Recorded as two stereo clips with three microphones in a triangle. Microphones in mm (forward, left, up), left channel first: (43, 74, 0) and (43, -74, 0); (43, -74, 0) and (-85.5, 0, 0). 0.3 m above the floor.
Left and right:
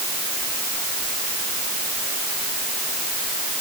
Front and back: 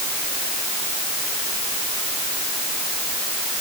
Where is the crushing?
I don't hear crushing.